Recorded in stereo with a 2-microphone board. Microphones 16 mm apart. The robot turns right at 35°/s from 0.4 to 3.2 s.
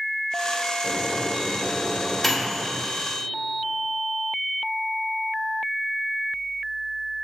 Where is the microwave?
60° left (ahead or behind), 1.1 m; by 2.8 s 10° right (ahead or behind), 1.1 m.